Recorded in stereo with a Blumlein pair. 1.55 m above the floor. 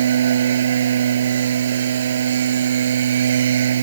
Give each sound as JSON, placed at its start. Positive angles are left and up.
{"t": 0.0, "sound": "a machine running", "azimuth_deg": -65}